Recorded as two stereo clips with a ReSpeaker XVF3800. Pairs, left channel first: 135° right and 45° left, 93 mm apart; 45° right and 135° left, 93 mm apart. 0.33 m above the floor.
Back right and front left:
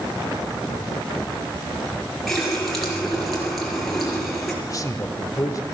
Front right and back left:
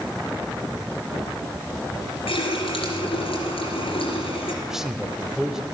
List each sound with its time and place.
2.3 s a running tap: 45° right, 3.5 m
4.7 s a man speaking: 145° right, 1.1 m